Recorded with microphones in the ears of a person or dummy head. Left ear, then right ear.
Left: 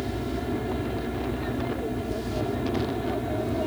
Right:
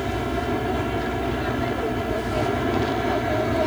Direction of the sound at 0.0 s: 45° right (ahead or behind).